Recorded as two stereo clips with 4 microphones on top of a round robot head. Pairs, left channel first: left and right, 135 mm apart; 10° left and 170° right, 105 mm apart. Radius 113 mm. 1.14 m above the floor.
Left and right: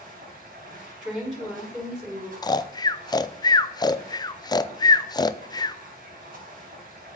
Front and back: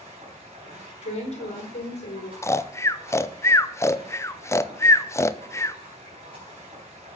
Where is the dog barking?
I don't hear a dog barking.